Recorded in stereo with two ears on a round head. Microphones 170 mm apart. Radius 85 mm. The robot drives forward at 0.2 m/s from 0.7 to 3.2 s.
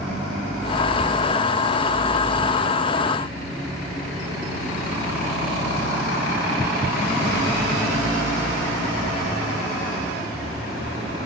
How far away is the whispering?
About 1.2 m.